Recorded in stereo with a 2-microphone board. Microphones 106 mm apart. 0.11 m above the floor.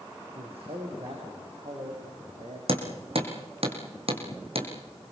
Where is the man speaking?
70° right (ahead or behind), 7 m; by 2.6 s 75° right (ahead or behind), 8 m.